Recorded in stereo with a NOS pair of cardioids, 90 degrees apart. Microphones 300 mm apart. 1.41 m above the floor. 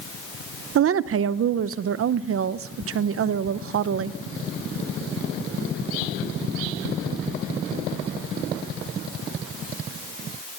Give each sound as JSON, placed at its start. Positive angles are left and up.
{"t": 0.8, "sound": "a woman speaking", "azimuth_deg": -50, "distance_m": 0.8}